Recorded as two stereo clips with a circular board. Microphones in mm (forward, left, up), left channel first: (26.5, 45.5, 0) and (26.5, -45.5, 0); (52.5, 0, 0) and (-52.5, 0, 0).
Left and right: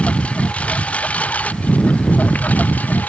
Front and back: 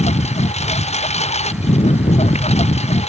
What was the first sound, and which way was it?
A lawn mower, 10° left.